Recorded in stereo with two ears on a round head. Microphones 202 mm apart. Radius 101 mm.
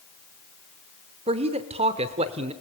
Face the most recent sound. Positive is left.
turn(degrees=-25)  # may be behind; listen again after turning